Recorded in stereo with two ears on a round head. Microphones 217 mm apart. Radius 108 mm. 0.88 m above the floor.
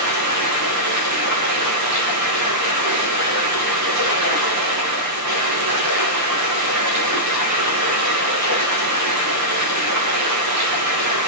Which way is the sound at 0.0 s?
80° right.